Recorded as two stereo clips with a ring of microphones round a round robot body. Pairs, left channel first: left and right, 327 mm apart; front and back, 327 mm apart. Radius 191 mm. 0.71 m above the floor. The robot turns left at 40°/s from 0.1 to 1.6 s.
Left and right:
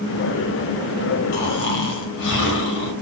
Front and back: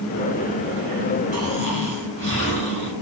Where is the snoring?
130° left, 3 m; by 2.9 s 120° left, 3 m.